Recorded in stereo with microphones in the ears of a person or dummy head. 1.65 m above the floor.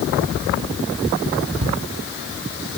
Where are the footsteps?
35° right (ahead or behind), 3 m; by 2.7 s 50° right (ahead or behind), 3 m.